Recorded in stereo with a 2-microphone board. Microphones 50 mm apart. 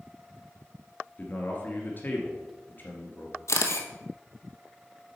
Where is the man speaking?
40° left (ahead or behind), 1.7 m.